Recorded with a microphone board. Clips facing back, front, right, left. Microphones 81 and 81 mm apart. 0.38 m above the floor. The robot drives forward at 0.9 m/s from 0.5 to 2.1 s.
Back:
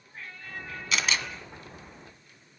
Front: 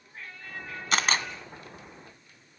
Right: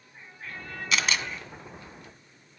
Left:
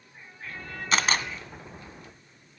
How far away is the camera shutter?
About 1.9 m.